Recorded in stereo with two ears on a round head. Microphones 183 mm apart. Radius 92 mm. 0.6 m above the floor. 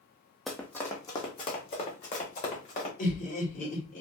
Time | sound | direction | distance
0.5 | running footsteps | centre (ahead or behind) | 0.9 m
3.0 | laughter | 40° left (ahead or behind) | 2.0 m